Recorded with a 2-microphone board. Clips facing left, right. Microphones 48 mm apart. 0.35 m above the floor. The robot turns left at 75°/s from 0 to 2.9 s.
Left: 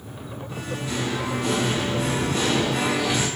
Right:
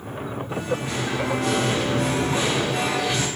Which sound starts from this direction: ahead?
Singing, at 0.5 s.